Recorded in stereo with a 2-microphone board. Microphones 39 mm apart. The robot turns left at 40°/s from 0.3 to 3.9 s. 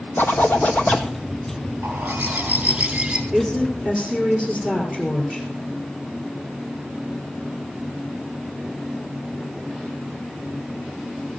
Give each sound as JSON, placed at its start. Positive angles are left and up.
{"t": 0.2, "sound": "a zipper", "azimuth_deg": 60, "distance_m": 1.0}
{"t": 1.8, "sound": "a bird", "azimuth_deg": -90, "distance_m": 2.0}
{"t": 3.3, "sound": "a woman speaking", "side_deg": -50, "distance_m": 2.5}